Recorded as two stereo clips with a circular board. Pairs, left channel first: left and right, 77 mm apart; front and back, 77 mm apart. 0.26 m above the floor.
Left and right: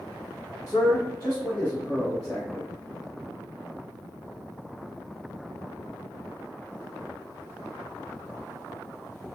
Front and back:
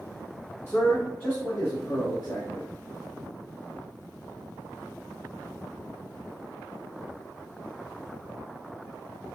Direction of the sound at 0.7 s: 45° left.